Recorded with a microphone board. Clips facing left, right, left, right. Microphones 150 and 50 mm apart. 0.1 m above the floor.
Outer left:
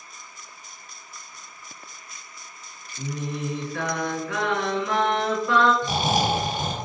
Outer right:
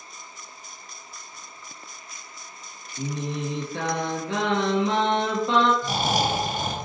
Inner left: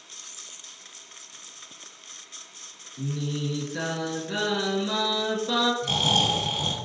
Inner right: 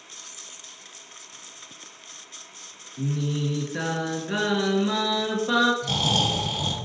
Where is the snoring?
20° left (ahead or behind), 1.4 m.